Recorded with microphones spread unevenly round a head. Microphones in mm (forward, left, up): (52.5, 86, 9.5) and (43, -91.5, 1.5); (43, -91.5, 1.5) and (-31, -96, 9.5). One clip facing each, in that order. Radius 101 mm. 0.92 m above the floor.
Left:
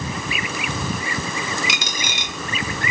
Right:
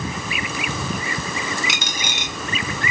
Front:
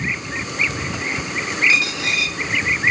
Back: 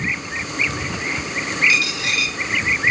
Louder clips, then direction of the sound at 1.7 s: Even, front 1 dB; 80° left.